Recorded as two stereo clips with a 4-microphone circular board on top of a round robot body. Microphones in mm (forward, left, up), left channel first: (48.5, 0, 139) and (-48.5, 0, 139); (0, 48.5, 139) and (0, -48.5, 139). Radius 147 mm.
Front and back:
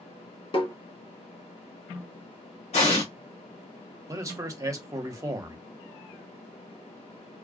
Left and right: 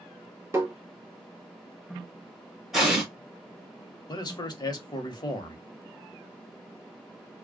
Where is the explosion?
5° right, 1.4 m.